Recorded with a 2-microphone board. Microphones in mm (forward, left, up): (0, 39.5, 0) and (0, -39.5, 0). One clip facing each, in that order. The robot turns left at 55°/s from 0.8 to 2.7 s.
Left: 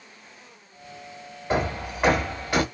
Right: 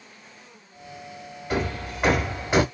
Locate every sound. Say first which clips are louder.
1.5 s hammering: left 2 dB; 35° left, 1.1 m; by 2.6 s 30° right, 1.1 m